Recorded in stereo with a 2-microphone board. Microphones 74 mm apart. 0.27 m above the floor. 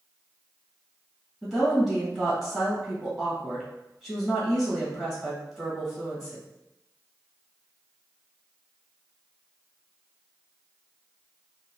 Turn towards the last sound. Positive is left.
turn(degrees=0)  # may be behind; listen again after turning